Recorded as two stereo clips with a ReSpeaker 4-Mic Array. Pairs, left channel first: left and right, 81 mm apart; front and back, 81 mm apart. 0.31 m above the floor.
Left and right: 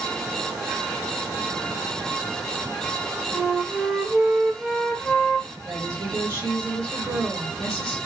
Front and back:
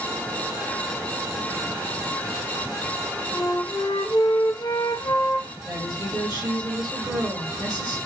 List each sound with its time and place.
3.3 s a flute: straight ahead, 0.7 m
5.6 s a woman speaking: 135° right, 2.5 m